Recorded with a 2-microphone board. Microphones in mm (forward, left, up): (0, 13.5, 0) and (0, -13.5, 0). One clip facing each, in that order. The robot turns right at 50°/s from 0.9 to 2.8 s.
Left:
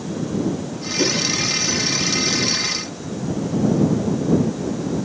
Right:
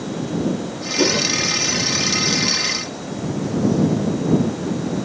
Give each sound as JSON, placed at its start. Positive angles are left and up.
{"t": 1.0, "sound": "a whoosh", "side_deg": -25}